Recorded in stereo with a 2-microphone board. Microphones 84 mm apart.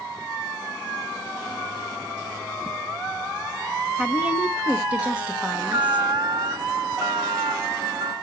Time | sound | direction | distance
4.0 | a woman speaking | 15° right (ahead or behind) | 1.3 m
5.5 | an alarm | 65° right (ahead or behind) | 1.8 m